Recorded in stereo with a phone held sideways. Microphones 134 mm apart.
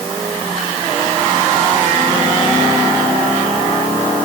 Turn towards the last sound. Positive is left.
No sound to turn to.